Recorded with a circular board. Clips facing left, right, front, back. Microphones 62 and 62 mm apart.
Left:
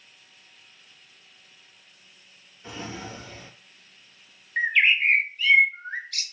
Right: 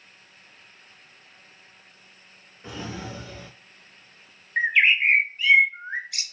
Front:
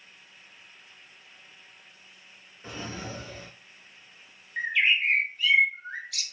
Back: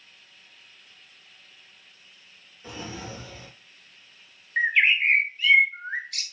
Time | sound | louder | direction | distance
2.6 | a drawer | right 1 dB, even | 50° right | 2 m
4.6 | a bird | right 1 dB, back 4 dB | 160° right | 0.5 m